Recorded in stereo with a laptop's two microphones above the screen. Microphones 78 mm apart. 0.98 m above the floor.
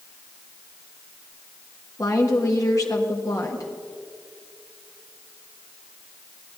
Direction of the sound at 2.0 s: 45° left (ahead or behind).